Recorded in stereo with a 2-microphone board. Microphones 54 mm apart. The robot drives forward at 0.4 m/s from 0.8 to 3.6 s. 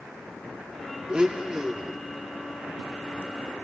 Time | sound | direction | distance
1.1 | a blender | 20° right (ahead or behind) | 0.8 m